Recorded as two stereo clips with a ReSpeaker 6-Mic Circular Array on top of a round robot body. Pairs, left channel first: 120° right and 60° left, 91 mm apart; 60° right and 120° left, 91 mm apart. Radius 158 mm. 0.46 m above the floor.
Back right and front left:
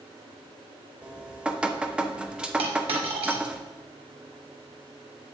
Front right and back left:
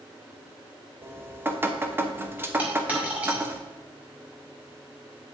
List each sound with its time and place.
1.0 s dripping: 120° left, 0.9 m
2.6 s a dropped coin: 45° left, 1.6 m